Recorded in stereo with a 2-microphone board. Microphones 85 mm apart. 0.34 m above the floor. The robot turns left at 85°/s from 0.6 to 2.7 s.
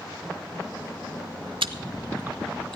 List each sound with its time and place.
1.6 s chewing: 85° right, 0.6 m; by 2.8 s 10° left (ahead or behind), 0.6 m